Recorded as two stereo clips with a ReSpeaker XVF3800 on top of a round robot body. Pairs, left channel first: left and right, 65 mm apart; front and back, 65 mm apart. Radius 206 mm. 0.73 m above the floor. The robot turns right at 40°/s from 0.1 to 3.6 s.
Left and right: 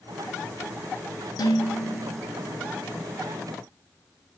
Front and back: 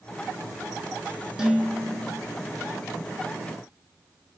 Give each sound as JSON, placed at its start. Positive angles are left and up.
{"t": 1.4, "sound": "dishes clattering", "azimuth_deg": 95, "distance_m": 1.3}